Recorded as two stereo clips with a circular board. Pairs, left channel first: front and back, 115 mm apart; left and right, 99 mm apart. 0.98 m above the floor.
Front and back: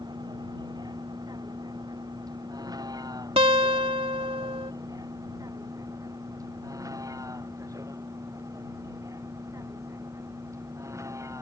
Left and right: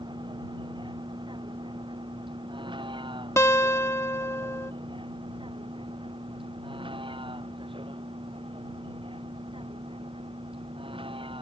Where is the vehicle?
130° right; by 11.4 s 115° right.